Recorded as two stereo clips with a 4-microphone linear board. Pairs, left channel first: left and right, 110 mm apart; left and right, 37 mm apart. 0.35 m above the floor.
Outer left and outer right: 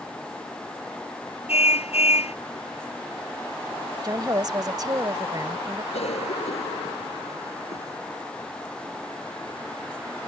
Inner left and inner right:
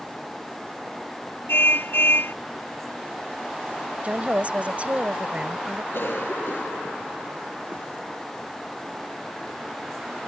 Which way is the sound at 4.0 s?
40° right (ahead or behind).